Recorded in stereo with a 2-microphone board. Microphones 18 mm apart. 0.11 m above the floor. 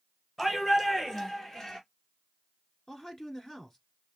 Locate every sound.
0.4 s a shout: 30° left (ahead or behind), 1.8 m; by 1.8 s 45° left (ahead or behind), 1.9 m
2.9 s a man speaking: 30° left (ahead or behind), 1.3 m